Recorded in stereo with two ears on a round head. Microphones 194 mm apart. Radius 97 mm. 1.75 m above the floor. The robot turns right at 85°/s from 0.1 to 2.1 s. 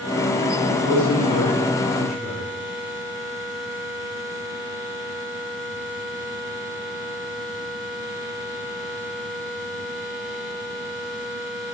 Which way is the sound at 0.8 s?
70° left.